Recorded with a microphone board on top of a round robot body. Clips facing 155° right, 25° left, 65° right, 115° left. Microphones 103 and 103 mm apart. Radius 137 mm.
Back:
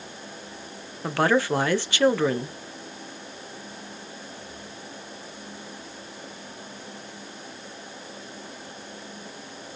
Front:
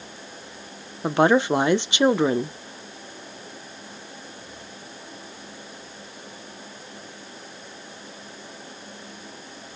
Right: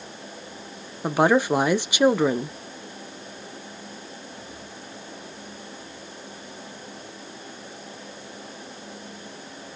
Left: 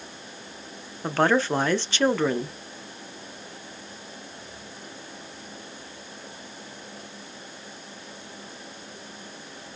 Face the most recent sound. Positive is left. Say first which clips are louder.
# front 4 dB, right 3 dB
turn(degrees=-10)